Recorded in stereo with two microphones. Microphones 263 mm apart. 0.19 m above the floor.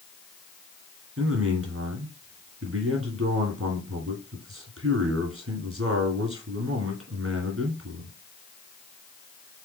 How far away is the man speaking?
About 1.9 m.